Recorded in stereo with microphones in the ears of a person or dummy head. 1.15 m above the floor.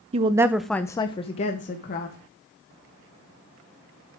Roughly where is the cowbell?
I don't hear a cowbell.